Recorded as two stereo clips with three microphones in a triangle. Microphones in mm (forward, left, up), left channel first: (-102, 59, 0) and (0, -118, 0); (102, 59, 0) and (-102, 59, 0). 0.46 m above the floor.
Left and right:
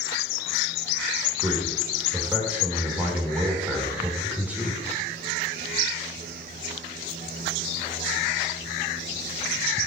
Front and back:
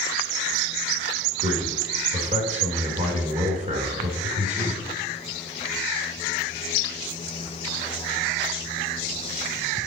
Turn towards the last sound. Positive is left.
turn(degrees=-140)